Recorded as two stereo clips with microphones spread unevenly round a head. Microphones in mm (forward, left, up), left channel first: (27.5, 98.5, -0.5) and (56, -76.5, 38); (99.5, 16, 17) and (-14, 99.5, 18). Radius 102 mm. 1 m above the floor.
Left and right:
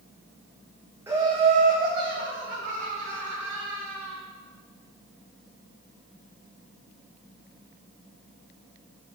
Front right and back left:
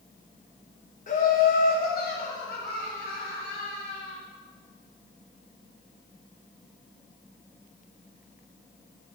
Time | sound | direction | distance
1.1 | laughter | straight ahead | 0.8 m